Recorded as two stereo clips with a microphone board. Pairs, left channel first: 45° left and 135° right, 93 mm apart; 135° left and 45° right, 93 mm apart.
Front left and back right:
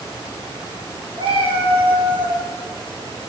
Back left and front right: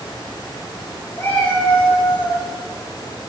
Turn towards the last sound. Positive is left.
turn(degrees=-155)